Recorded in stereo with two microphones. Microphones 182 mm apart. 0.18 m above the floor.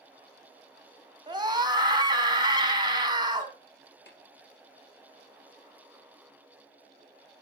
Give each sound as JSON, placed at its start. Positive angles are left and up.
{"t": 1.3, "sound": "a scream", "side_deg": -25, "distance_m": 1.1}
{"t": 4.1, "sound": "tapping", "side_deg": 70, "distance_m": 2.5}